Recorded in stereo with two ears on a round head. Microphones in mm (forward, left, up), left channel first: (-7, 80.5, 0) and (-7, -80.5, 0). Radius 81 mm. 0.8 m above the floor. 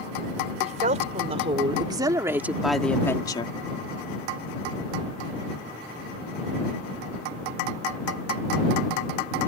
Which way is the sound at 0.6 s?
45° right (ahead or behind).